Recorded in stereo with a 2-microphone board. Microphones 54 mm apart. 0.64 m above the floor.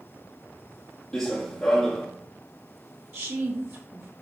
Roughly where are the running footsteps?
Centre.